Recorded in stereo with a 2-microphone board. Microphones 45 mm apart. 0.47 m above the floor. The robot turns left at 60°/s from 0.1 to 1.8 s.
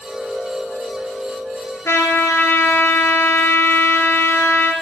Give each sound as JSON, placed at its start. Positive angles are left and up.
{"t": 1.9, "sound": "a trumpet", "side_deg": 75, "distance_m": 1.4}